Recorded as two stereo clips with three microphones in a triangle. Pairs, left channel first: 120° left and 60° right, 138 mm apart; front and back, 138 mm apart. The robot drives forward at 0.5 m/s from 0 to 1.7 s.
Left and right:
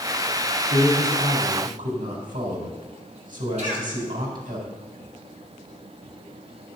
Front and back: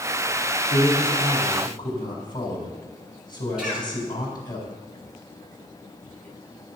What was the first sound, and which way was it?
A man speaking, 55° right.